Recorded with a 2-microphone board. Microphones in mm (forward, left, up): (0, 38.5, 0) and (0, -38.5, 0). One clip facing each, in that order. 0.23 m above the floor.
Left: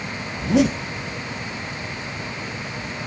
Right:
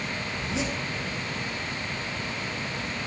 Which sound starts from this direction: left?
A zipper, at 0.3 s.